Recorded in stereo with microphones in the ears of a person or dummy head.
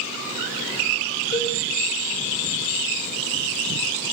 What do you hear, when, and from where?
1.3 s a cowbell: 30° left (ahead or behind), 4.5 m